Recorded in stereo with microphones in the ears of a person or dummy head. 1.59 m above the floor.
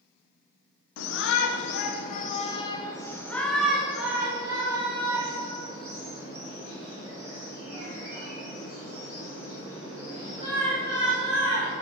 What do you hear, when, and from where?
1.0 s a shout: 75° left (ahead or behind), 1.1 m; by 11.7 s 40° right (ahead or behind), 5 m